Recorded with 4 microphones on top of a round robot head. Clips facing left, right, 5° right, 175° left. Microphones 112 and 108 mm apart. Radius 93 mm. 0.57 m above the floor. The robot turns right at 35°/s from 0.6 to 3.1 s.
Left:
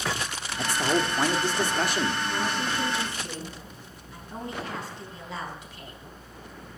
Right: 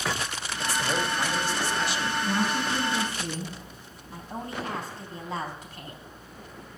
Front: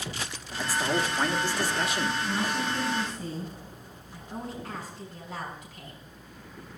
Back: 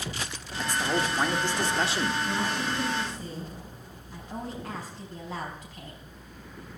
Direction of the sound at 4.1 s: 135° right.